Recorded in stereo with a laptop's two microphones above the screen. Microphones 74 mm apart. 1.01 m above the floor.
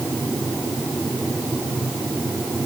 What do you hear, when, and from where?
Only background noise.